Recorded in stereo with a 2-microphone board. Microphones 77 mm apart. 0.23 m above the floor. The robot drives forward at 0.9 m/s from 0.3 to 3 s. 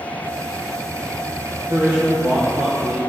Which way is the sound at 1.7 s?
55° right (ahead or behind).